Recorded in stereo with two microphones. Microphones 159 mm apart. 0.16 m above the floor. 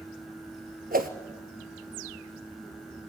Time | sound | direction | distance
0.9 | a whoosh | 65° right (ahead or behind) | 1.6 m